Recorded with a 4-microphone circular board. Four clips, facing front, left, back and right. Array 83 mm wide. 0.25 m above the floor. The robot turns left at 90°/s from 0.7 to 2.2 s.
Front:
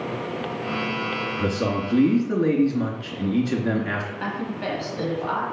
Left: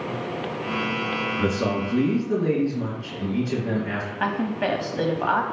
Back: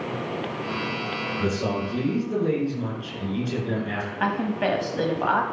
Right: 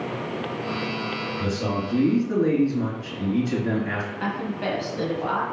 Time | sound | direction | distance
1.4 | a man speaking | 65° left | 3 m
4.2 | a woman speaking | 135° left | 1.2 m